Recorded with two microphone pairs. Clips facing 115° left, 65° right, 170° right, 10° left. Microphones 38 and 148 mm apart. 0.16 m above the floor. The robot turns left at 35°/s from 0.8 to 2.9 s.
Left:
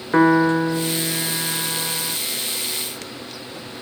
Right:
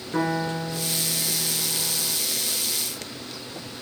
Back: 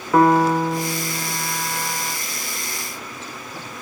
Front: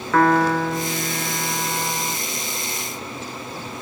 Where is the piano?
125° left, 1.0 m; by 2.2 s 75° left, 1.0 m.